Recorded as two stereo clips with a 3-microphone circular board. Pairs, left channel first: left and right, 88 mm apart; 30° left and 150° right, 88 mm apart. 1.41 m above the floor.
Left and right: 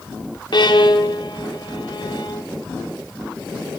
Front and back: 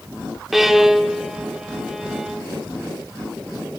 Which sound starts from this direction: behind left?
A violin, at 0.5 s.